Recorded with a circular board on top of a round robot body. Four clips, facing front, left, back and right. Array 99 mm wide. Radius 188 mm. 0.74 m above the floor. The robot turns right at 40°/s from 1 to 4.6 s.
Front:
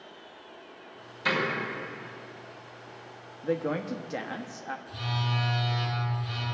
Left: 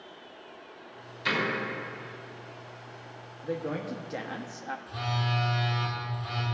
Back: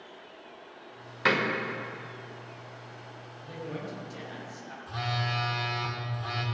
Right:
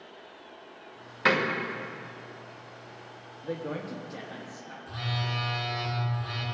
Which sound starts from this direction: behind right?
A door slam, at 1.2 s.